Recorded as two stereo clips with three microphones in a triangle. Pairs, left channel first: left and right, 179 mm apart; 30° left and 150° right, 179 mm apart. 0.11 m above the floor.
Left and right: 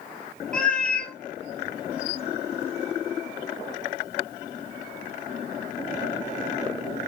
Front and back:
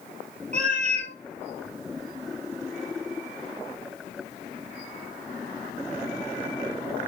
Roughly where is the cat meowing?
Behind.